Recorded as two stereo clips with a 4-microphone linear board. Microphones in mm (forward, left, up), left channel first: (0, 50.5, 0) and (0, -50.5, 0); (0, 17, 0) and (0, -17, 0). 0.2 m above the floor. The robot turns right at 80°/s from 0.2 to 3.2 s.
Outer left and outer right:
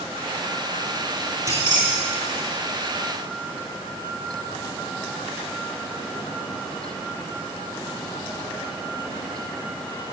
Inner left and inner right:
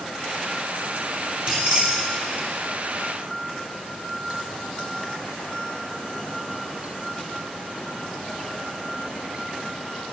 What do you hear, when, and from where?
1.5 s keys jangling: 25° right (ahead or behind), 2.5 m; by 2.5 s 60° right (ahead or behind), 2.5 m